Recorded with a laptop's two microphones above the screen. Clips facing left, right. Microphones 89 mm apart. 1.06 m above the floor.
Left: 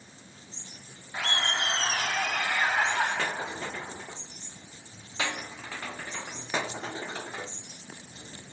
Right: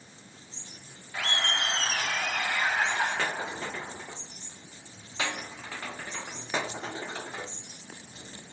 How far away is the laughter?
About 3 m.